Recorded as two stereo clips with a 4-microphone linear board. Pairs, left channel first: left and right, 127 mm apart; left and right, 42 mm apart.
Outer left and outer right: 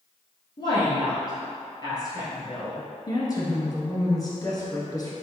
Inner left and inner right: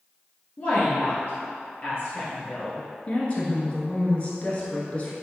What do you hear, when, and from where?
0.6 s a woman speaking: 35° left (ahead or behind), 1.8 m
3.1 s a woman speaking: 30° left (ahead or behind), 1.3 m